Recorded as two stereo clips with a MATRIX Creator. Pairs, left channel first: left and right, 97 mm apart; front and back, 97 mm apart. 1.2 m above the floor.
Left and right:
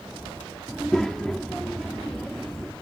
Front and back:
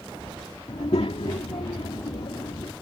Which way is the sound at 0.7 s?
5° left.